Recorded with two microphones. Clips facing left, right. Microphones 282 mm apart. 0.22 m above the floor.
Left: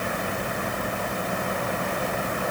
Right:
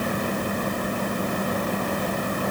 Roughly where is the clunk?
I don't hear a clunk.